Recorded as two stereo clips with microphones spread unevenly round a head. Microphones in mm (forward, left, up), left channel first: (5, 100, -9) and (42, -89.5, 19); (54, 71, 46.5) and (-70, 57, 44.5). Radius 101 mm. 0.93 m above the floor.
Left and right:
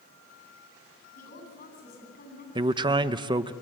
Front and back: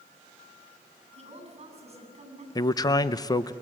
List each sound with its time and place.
1.1 s a woman speaking: 150° left, 10 m
2.5 s a man speaking: 15° right, 0.6 m